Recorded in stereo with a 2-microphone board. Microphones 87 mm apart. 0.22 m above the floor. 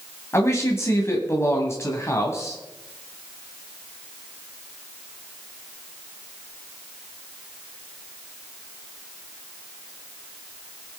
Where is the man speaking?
35° left (ahead or behind), 1.8 m.